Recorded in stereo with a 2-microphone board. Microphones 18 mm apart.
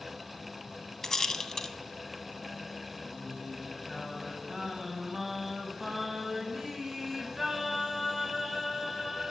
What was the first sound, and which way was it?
A rattle, 20° left (ahead or behind).